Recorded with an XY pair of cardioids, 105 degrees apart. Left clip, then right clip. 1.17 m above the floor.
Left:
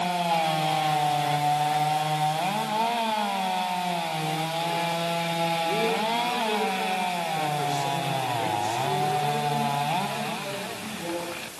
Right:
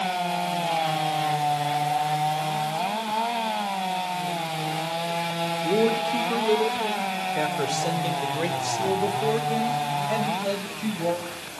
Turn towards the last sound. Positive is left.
turn(degrees=-65)